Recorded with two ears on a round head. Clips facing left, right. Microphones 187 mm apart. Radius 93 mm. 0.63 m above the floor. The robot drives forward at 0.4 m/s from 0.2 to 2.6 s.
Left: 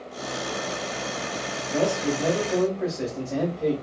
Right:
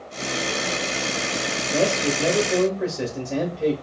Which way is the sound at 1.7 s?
35° right (ahead or behind).